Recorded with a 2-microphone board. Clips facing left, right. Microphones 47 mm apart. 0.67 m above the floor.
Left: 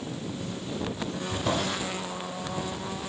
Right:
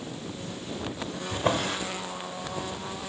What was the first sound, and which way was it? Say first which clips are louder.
A drawer: right 3 dB; 40° right (ahead or behind).